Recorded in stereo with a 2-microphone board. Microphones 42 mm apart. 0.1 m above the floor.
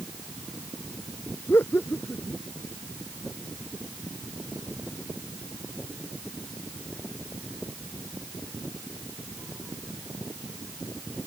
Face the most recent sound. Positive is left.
turn(degrees=65)  # may be behind; listen again after turning